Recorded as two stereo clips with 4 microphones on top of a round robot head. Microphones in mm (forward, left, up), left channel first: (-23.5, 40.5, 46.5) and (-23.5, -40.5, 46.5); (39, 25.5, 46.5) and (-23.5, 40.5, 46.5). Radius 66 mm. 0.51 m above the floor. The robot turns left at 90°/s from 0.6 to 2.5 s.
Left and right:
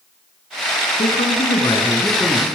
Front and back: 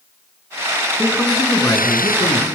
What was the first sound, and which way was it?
A man speaking, 100° left.